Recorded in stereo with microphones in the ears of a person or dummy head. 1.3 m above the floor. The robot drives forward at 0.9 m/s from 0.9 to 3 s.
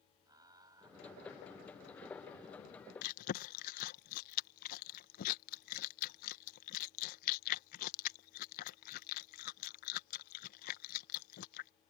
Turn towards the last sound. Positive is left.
turn(degrees=55)  # may be behind; listen again after turning